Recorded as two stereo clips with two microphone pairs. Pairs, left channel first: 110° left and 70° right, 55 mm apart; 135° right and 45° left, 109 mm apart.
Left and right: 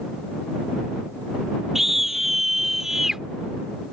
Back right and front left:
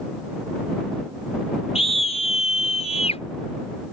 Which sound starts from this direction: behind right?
A scream, at 1.8 s.